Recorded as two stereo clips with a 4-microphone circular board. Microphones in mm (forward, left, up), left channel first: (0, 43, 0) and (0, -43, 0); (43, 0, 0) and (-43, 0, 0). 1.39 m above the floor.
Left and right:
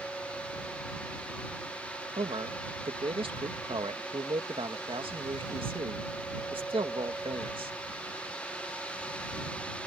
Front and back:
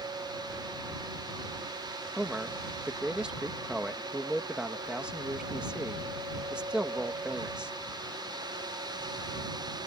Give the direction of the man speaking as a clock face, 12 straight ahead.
3 o'clock.